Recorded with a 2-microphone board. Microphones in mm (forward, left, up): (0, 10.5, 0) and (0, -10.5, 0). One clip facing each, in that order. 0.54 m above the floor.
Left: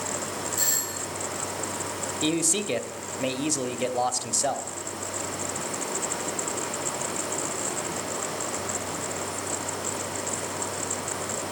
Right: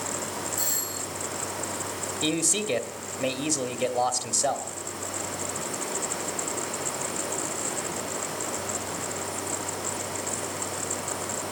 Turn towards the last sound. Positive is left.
turn(degrees=5)  # may be behind; listen again after turning